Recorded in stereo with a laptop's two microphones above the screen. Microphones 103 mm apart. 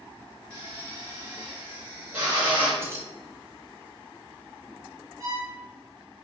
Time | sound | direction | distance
0.5 | a drill | 25° right (ahead or behind) | 1.9 m
2.8 | keys jangling | 25° right (ahead or behind) | 0.7 m
5.2 | a violin | 30° right (ahead or behind) | 0.6 m